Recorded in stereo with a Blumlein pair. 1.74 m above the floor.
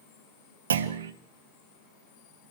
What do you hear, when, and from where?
0.7 s a clunk: 65° right, 1.7 m